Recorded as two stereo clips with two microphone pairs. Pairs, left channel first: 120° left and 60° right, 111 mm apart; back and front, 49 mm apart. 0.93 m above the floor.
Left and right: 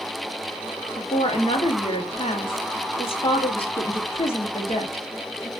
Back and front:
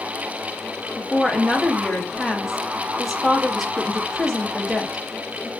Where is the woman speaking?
90° left, 1.0 m.